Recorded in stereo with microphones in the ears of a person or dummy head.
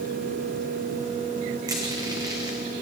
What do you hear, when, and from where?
1.7 s crushing: 15° right (ahead or behind), 0.8 m